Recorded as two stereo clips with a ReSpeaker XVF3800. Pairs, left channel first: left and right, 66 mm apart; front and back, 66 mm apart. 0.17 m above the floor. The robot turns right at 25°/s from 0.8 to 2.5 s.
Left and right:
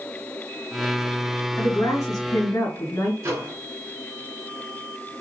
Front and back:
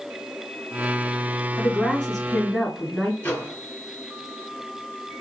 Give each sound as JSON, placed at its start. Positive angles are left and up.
{"t": 1.6, "sound": "a woman speaking", "azimuth_deg": 70, "distance_m": 2.5}
{"t": 3.2, "sound": "a microwave", "azimuth_deg": -60, "distance_m": 2.0}